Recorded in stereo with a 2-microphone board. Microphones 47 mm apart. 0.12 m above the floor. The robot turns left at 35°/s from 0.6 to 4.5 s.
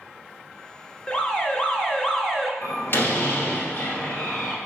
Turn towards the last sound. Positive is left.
turn(degrees=5)